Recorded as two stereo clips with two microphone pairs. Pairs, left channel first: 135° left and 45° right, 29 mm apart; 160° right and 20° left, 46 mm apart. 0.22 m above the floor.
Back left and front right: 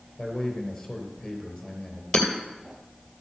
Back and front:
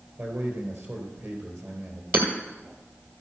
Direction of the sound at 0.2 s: 55° left.